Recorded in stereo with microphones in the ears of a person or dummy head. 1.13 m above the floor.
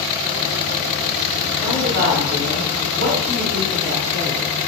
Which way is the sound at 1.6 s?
75° right (ahead or behind).